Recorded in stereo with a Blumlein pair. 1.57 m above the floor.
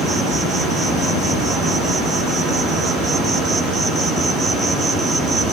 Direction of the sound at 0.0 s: 5° right.